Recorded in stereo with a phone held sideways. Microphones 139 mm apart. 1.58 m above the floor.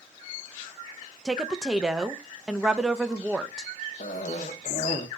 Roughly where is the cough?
Left.